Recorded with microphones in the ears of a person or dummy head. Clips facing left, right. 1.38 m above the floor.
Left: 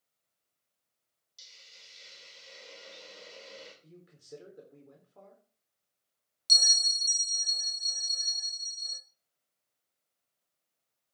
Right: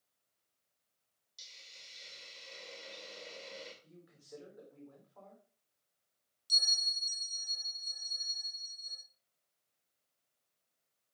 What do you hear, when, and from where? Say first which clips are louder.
1.4 s a hiss: even; 5° left (ahead or behind), 3.5 m
3.8 s a man speaking: left 4 dB; 35° left (ahead or behind), 4 m
6.5 s a bell: left 7 dB; 75° left (ahead or behind), 1.3 m